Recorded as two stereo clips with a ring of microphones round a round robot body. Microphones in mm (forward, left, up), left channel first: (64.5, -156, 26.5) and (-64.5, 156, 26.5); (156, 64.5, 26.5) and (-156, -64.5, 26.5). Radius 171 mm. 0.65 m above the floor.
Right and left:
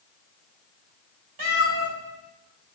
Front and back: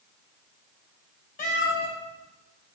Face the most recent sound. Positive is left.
turn(degrees=90)